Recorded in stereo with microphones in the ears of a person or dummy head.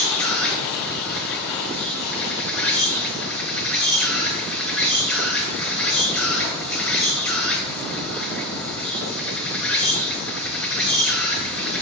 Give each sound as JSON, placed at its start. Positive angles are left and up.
{"t": 0.0, "sound": "an insect", "side_deg": 5, "distance_m": 2.0}